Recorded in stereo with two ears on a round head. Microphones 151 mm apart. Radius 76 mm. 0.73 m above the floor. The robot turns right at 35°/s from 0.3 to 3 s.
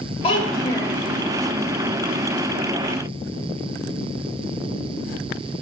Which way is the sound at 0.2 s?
35° left (ahead or behind).